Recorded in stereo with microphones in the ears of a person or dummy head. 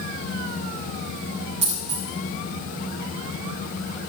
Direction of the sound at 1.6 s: 30° right (ahead or behind).